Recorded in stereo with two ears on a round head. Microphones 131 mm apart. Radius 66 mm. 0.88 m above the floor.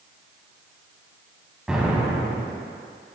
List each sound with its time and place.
1.7 s an explosion: 5° right (ahead or behind), 1.7 m